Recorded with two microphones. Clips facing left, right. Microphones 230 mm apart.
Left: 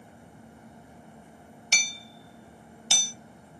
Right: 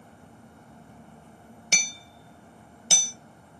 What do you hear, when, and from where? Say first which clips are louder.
1.7 s hammering: right 3 dB; 55° right (ahead or behind), 0.8 m